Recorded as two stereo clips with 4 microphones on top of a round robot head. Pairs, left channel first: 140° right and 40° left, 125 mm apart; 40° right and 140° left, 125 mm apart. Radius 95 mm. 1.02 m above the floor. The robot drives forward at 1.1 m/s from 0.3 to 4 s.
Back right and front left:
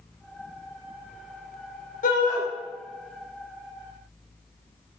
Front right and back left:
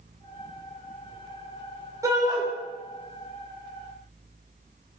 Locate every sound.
2.0 s a shout: 150° right, 6 m; by 2.4 s 155° right, 6.5 m